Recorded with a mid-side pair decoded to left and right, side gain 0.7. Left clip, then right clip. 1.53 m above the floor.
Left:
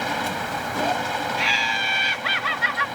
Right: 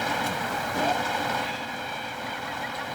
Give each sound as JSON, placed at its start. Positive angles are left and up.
{"t": 0.0, "sound": "a machine running", "azimuth_deg": 10}
{"t": 1.4, "sound": "laughter", "azimuth_deg": 65}